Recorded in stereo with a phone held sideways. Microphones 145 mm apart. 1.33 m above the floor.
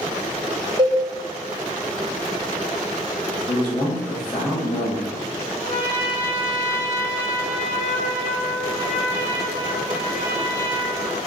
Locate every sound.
0.8 s a cowbell: 30° right (ahead or behind), 0.7 m
3.5 s a man speaking: 45° left (ahead or behind), 1.7 m
5.6 s a trumpet: 5° right (ahead or behind), 1.4 m